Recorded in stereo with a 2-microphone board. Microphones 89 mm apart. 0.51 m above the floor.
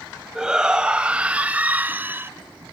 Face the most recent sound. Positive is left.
turn(degrees=-25)  # may be behind; listen again after turning